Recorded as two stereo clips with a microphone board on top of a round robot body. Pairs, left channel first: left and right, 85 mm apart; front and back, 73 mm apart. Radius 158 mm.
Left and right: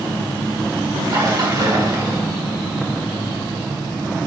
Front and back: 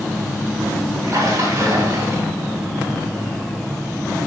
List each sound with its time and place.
1.0 s a splash: 130° right, 2.5 m